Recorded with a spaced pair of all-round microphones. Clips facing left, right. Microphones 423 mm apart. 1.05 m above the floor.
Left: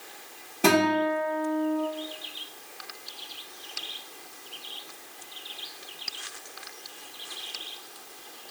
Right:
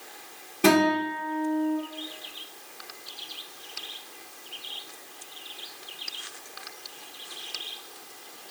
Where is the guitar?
10° right (ahead or behind), 1.4 m.